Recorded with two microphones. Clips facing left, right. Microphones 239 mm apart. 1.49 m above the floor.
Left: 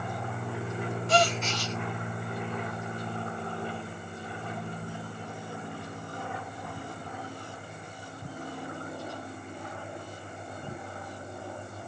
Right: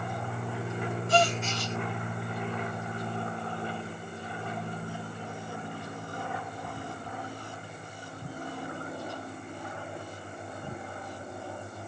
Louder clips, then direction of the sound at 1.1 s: Even; 80° left.